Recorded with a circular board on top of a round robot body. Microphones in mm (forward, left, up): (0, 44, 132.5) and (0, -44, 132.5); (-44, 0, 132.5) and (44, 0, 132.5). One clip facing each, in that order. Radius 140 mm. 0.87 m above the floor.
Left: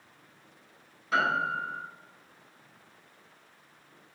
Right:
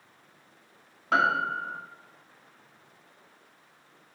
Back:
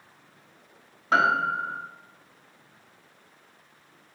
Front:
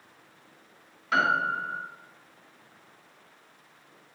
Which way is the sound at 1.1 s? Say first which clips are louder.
Right 3 dB, back 3 dB; 125° right.